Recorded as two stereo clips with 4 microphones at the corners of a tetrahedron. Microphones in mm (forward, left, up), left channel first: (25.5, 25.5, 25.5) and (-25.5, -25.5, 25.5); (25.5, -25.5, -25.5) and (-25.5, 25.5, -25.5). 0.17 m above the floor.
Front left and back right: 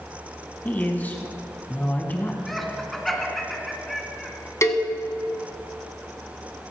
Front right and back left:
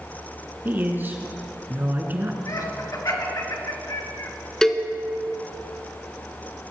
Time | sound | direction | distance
0.7 | a man speaking | 95° left | 1.3 m
2.5 | laughter | 40° right | 2 m
4.6 | a cowbell | 35° left | 1.0 m